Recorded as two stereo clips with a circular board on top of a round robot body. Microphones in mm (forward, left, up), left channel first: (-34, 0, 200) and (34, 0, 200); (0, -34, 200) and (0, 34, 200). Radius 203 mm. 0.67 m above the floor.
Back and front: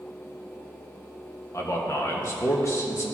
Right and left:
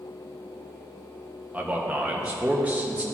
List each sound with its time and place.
1.5 s a man speaking: 155° left, 1.4 m